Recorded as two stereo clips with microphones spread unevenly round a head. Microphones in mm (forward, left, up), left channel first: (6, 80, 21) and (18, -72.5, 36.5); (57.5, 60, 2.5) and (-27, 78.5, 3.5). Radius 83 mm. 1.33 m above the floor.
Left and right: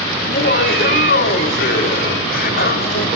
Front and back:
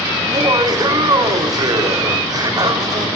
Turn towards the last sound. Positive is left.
turn(degrees=125)